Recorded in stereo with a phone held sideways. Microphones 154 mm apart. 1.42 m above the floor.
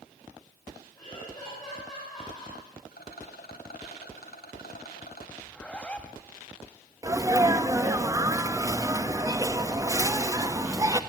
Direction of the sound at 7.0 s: 20° right (ahead or behind).